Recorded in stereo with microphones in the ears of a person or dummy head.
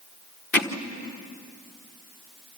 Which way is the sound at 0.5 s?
5° left (ahead or behind).